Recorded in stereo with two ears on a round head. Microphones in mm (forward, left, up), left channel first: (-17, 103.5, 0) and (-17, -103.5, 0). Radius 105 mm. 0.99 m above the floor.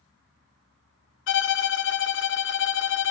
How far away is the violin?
About 1.2 m.